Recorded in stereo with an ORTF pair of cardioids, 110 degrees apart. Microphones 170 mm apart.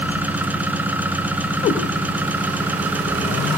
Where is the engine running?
10° right, 3 m.